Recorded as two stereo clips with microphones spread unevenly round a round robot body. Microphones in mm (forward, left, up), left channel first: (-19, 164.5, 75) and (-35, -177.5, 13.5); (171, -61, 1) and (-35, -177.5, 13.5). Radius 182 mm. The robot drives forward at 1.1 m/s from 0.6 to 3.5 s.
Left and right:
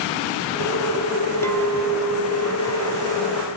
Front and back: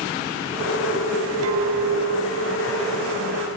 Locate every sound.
1.4 s a clink: 175° left, 0.7 m; by 3.6 s straight behind, 3 m